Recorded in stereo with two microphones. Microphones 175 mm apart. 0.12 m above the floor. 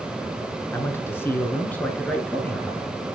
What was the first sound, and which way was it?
A man speaking, 15° left (ahead or behind).